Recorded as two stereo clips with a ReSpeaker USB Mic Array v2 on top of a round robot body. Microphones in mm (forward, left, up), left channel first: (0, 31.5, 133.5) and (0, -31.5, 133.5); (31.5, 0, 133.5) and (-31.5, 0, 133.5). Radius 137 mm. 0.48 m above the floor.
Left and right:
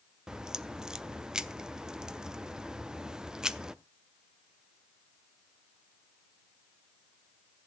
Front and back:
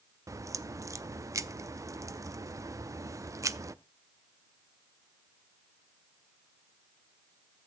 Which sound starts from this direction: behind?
A crack, at 0.3 s.